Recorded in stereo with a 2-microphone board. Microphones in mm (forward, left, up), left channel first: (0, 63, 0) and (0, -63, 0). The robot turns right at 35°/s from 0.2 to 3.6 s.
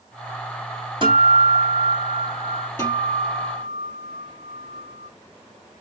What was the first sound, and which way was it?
A guitar, 40° right.